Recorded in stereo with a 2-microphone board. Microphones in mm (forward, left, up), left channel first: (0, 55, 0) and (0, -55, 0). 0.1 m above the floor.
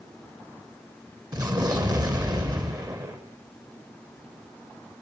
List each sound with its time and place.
1.3 s an explosion: 35° right (ahead or behind), 3 m